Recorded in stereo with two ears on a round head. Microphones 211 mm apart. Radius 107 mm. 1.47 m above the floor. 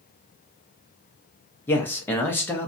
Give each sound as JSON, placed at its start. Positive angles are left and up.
{"t": 1.7, "sound": "a man speaking", "side_deg": 10, "distance_m": 0.7}